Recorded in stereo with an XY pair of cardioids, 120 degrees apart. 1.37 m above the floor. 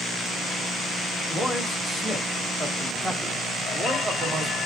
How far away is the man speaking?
About 2.5 m.